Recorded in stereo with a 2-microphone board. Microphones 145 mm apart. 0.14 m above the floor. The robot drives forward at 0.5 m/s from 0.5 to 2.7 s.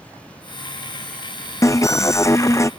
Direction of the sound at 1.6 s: 20° left (ahead or behind).